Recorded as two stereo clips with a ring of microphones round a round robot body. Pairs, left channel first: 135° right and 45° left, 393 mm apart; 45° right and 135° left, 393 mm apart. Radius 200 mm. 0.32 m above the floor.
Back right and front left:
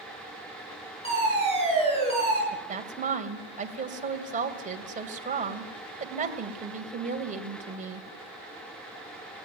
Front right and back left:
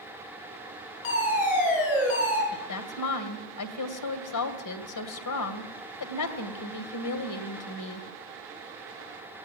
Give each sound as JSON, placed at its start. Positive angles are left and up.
{"t": 1.0, "sound": "a fire alarm", "azimuth_deg": -60, "distance_m": 7.5}
{"t": 2.5, "sound": "a woman speaking", "azimuth_deg": -20, "distance_m": 2.0}